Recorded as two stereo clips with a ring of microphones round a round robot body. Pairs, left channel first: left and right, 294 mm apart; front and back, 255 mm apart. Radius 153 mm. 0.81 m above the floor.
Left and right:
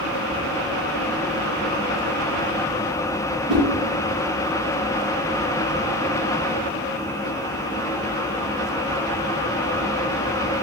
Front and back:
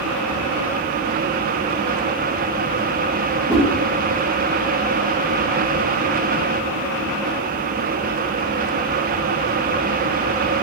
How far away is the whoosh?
About 1.6 m.